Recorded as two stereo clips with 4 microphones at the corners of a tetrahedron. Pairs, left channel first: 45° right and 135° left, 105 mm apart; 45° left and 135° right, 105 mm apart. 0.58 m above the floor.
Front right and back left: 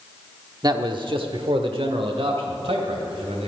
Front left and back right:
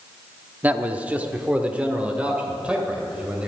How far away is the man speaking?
About 0.8 m.